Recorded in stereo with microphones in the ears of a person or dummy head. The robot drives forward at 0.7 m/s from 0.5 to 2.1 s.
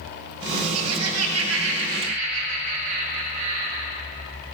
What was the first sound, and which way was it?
Laughter, 85° right.